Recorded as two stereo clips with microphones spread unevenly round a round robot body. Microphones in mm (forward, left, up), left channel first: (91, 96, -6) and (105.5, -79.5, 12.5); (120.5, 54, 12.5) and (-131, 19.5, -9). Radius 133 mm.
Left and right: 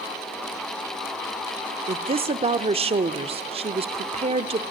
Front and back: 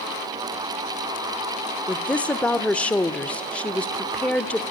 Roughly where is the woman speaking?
Right.